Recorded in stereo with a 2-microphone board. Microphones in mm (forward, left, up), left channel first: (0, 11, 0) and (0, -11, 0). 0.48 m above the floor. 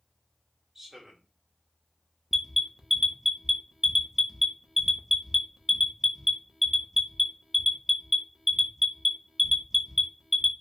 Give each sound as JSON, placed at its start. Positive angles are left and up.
{"t": 0.8, "sound": "a man speaking", "side_deg": -15, "distance_m": 0.8}
{"t": 2.3, "sound": "an alarm", "side_deg": -10, "distance_m": 0.5}